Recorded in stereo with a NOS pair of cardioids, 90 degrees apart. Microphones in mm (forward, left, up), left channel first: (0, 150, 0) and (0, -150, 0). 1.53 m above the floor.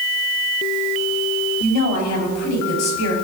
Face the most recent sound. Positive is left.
turn(degrees=65)